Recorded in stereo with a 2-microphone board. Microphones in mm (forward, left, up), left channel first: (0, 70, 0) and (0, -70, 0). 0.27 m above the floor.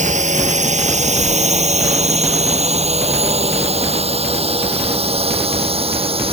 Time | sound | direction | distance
0.0 | a drone | 65° right (ahead or behind) | ?